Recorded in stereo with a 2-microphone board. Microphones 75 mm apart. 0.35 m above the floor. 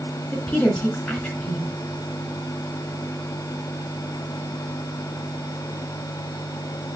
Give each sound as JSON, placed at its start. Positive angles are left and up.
{"t": 0.3, "sound": "a woman speaking", "side_deg": 15, "distance_m": 3.0}